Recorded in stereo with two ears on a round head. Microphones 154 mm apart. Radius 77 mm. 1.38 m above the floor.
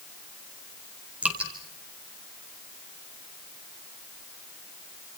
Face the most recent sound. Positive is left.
turn(degrees=-5)  # may be behind; listen again after turning